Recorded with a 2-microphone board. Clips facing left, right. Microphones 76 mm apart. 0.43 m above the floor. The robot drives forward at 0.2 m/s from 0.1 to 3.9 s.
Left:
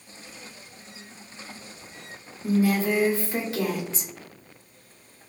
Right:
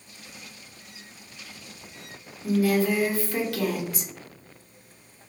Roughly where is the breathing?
I don't hear breathing.